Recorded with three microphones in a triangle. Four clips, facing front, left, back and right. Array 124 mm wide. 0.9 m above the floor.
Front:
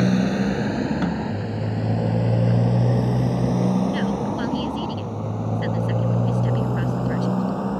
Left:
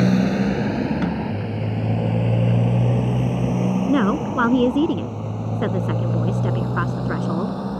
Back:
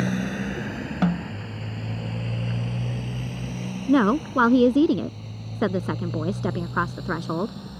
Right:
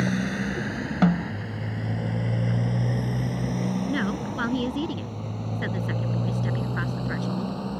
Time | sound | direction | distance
0.0 | a motorcycle | 60° left | ?
1.0 | a snare drum | 115° right | ?
3.9 | a woman speaking | 145° left | ?